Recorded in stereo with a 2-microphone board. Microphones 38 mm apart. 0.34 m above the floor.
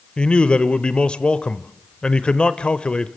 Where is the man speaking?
25° left (ahead or behind), 0.9 m.